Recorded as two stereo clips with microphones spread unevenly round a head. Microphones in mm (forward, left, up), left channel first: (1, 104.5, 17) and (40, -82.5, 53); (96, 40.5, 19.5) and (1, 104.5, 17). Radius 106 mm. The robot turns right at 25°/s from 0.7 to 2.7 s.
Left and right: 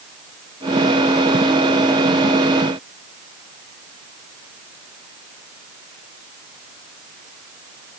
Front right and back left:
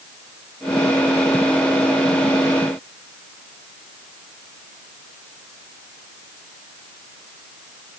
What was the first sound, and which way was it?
Only background noise.